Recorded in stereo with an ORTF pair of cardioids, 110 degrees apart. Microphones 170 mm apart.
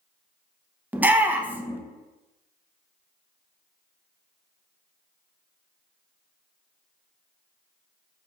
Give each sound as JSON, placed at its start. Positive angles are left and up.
{"t": 0.9, "sound": "a shout", "azimuth_deg": -10, "distance_m": 0.6}